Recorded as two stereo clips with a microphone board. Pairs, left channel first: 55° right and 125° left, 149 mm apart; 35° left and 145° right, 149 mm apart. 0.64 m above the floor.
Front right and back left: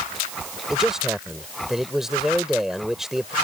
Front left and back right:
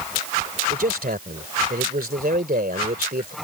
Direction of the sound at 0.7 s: 150° right.